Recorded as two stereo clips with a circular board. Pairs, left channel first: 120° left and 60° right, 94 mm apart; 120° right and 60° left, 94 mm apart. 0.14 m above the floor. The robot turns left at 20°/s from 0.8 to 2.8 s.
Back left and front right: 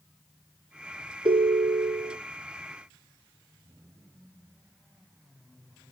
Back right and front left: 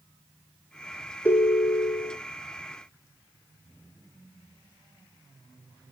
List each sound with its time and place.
1.2 s a ringtone: 55° right, 1.3 m; by 2.2 s 70° right, 1.3 m